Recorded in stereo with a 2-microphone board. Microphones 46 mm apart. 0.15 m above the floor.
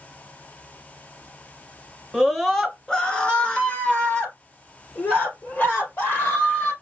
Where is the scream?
Centre (ahead or behind), 1.4 m; by 6.7 s 45° left (ahead or behind), 4 m.